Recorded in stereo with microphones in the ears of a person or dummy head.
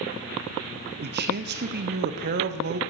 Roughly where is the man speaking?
Right.